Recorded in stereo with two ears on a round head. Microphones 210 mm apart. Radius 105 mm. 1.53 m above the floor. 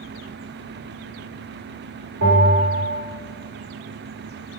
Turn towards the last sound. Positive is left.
turn(degrees=-55)  # may be behind; listen again after turning